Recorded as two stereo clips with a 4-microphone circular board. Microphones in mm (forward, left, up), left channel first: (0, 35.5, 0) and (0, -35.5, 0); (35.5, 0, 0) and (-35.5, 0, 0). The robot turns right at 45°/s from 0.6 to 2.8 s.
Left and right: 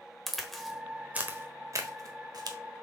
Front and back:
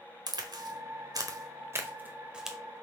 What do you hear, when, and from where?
0.3 s a crack: straight behind, 1.2 m; by 2.6 s 95° right, 1.2 m